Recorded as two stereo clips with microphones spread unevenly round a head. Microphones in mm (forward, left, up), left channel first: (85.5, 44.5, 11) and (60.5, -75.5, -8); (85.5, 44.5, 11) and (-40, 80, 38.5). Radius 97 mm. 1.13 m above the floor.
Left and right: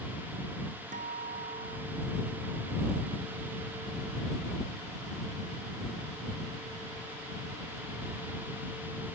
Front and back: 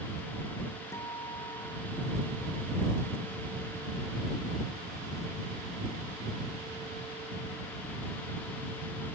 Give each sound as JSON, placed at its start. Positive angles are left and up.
{"t": 0.9, "sound": "a guitar", "azimuth_deg": -95}